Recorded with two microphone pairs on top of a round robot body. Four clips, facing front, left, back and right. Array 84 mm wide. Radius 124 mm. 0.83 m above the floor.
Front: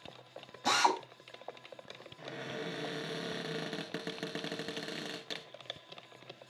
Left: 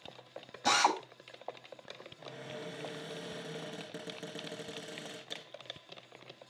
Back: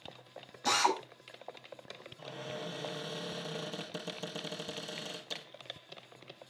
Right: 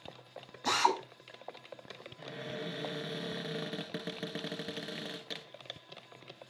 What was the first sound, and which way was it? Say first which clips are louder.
A drill: even, front 1 dB; 80° left.